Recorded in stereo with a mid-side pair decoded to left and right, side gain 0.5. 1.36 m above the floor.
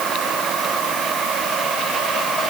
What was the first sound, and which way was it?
Only background noise.